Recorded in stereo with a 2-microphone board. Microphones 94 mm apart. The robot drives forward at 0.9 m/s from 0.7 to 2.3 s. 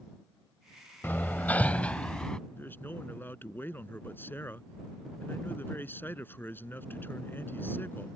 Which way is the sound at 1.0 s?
20° left (ahead or behind).